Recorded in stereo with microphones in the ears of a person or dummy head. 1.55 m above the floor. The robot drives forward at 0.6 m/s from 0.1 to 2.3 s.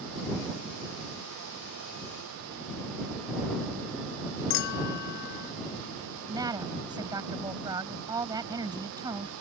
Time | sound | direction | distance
4.5 | a clink | 65° left (ahead or behind) | ?
6.3 | a woman speaking | 20° right (ahead or behind) | ?